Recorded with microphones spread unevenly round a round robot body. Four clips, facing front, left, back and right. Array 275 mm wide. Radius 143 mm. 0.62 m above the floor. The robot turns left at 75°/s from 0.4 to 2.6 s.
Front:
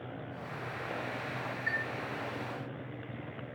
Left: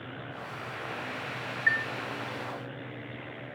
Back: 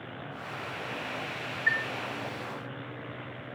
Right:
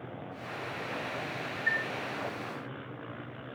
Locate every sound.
1.7 s a chime: 65° left, 2 m; by 1.9 s 50° left, 2 m